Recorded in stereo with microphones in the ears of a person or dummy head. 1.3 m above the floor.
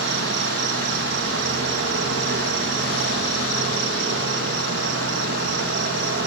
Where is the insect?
75° right (ahead or behind), 1.3 m.